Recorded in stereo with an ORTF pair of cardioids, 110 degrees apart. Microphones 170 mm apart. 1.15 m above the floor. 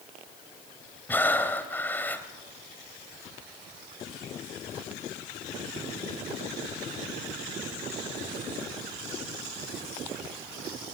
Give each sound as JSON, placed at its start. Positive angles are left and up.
{"t": 1.1, "sound": "breathing", "azimuth_deg": 10, "distance_m": 2.5}